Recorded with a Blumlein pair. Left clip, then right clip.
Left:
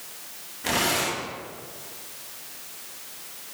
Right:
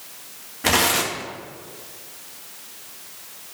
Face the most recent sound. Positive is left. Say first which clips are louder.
# right 5 dB
turn(degrees=-65)